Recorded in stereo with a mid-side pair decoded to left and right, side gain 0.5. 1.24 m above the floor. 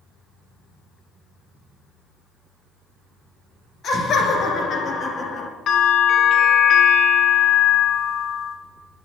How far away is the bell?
About 2.5 m.